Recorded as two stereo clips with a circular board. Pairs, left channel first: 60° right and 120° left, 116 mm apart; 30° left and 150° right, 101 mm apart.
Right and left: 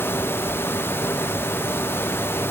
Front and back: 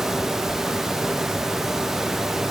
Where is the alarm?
I don't hear an alarm.